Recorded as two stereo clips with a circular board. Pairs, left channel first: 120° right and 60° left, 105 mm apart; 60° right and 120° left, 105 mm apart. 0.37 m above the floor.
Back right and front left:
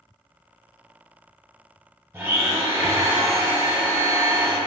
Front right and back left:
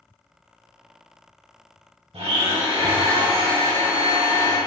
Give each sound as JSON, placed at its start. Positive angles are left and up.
{"t": 2.1, "sound": "a blender", "azimuth_deg": 130, "distance_m": 0.7}